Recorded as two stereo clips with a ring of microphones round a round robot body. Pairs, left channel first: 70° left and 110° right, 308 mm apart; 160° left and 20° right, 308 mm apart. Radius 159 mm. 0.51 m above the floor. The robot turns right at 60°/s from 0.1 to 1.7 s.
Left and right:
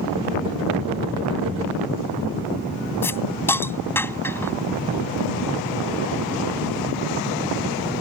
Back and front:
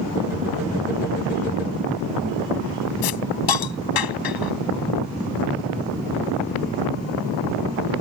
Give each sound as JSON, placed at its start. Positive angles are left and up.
{"t": 3.0, "sound": "a hiss", "azimuth_deg": 150}